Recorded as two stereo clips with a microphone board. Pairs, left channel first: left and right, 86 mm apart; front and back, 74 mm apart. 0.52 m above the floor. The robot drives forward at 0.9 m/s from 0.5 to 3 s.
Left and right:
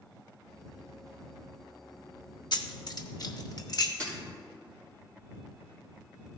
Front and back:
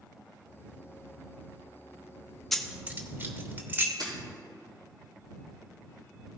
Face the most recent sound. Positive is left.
turn(degrees=160)